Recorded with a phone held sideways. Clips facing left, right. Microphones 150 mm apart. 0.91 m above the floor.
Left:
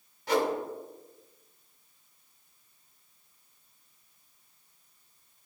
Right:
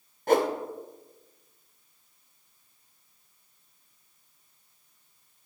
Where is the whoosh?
50° right (ahead or behind), 0.8 m.